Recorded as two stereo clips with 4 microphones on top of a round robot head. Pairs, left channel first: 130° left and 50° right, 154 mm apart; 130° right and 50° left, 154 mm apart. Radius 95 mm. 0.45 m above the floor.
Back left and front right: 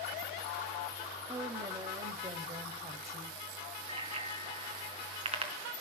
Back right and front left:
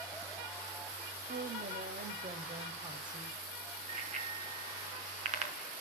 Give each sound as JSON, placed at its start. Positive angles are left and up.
{"t": 1.3, "sound": "a woman speaking", "azimuth_deg": 25, "distance_m": 3.0}
{"t": 3.9, "sound": "a bicycle bell", "azimuth_deg": 5, "distance_m": 4.0}